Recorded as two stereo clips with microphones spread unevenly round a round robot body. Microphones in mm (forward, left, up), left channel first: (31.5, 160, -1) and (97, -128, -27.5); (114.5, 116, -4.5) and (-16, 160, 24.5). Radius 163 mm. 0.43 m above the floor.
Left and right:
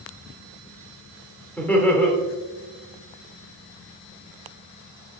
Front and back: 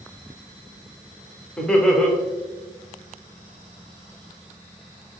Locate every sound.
1.6 s laughter: 15° left, 0.8 m